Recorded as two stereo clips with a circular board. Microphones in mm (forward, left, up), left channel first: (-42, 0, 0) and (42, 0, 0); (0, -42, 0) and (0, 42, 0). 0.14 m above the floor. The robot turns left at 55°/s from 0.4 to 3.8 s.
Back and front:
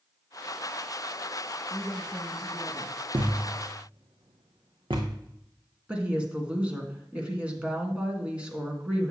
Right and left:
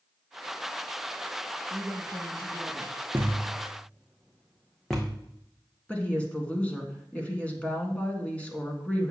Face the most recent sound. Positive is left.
turn(degrees=-50)